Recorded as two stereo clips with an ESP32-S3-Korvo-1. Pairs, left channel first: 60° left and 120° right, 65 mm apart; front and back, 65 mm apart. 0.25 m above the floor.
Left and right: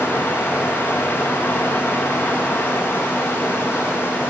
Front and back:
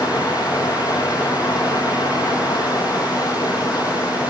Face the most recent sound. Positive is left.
turn(degrees=0)